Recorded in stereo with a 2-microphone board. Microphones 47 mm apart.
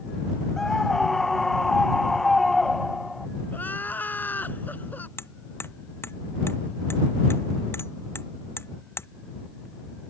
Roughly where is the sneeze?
No sneeze in this recording.